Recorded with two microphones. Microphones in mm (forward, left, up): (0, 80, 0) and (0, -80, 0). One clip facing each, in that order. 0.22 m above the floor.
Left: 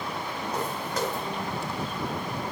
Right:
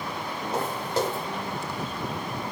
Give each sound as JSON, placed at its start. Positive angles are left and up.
{"t": 0.5, "sound": "footsteps", "side_deg": -30, "distance_m": 4.0}